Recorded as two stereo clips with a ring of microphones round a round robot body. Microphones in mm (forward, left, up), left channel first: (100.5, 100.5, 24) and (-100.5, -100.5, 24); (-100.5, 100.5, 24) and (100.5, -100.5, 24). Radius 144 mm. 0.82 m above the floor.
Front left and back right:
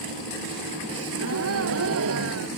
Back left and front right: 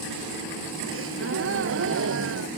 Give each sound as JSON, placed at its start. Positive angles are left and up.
{"t": 0.9, "sound": "a gasp", "azimuth_deg": -90}